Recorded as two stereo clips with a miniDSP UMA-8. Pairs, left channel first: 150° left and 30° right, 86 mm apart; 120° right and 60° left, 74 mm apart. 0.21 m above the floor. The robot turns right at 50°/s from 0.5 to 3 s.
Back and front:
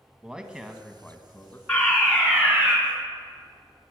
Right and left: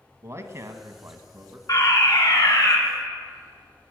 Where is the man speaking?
45° left, 1.3 m; by 1.6 s 100° left, 1.3 m.